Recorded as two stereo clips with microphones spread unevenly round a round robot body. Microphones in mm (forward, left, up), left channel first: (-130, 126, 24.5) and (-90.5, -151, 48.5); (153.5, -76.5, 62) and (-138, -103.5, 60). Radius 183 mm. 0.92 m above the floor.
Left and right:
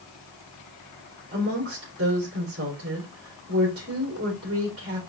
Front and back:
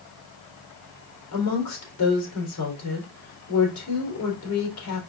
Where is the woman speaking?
15° right, 3.5 m.